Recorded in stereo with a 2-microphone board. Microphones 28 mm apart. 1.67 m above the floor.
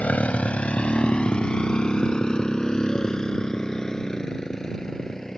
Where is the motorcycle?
55° left (ahead or behind); by 5.4 s 15° left (ahead or behind).